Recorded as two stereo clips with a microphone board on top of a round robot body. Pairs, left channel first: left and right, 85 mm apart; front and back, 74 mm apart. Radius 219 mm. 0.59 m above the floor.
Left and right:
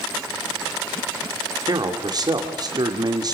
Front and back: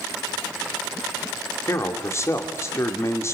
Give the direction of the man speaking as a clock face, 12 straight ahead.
2 o'clock.